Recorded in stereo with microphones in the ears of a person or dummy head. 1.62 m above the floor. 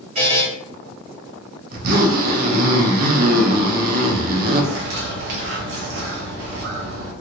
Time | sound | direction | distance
0.1 | a buzzer | 45° right (ahead or behind) | 1.3 m
1.7 | a zipper | 50° right (ahead or behind) | 0.8 m
4.6 | a bird | 55° right (ahead or behind) | 0.7 m